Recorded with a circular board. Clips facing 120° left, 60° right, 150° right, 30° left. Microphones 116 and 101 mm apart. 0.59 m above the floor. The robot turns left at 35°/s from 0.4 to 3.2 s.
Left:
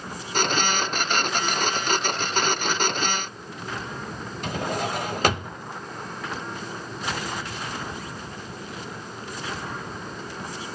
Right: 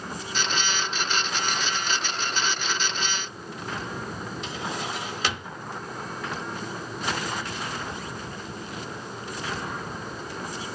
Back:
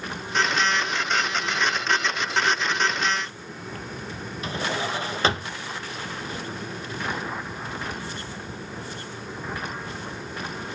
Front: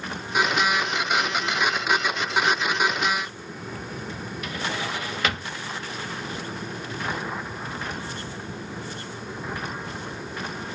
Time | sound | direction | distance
4.4 | a drawer | 155° left | 0.6 m